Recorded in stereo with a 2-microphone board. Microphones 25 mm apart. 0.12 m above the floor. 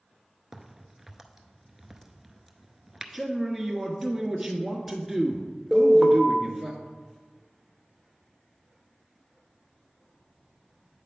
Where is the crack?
15° right (ahead or behind), 0.6 m.